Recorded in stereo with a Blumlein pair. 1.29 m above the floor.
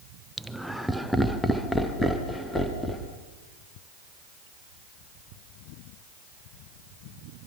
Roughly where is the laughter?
Ahead.